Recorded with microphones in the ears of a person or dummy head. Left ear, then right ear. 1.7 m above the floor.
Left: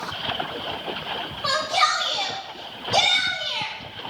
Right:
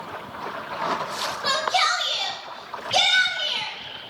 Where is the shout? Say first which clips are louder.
Left 1 dB; 10° right (ahead or behind), 2.5 m.